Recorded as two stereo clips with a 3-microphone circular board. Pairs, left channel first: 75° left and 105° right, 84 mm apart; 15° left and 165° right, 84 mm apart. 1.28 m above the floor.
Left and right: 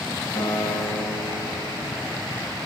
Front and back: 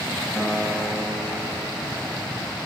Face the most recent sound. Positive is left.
turn(degrees=95)